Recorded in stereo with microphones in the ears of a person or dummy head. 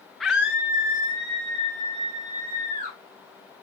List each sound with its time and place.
0.2 s a scream: 5° left (ahead or behind), 0.9 m; by 3.0 s 35° right (ahead or behind), 3 m